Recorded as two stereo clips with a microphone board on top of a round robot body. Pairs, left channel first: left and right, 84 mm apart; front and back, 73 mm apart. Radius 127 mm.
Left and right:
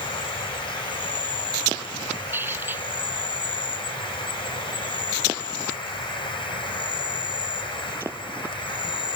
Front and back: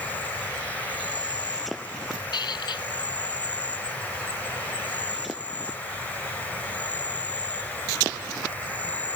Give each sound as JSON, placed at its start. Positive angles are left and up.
{"t": 0.0, "sound": "an insect", "azimuth_deg": 70}
{"t": 2.3, "sound": "a squeak", "azimuth_deg": -25}